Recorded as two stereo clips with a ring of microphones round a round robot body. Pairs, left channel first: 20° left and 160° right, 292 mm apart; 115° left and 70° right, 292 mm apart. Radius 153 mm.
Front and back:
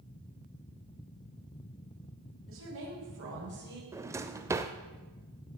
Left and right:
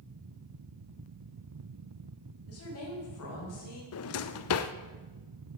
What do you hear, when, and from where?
2.5 s a woman speaking: 155° left, 6 m; by 3.8 s 150° left, 5.5 m
3.9 s a drawer: 125° left, 0.6 m